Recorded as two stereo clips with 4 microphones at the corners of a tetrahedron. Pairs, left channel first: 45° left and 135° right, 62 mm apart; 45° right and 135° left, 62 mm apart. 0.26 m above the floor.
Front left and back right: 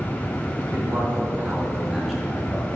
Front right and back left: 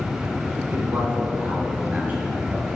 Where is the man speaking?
170° right, 2.5 m; by 2.6 s 80° left, 1.5 m.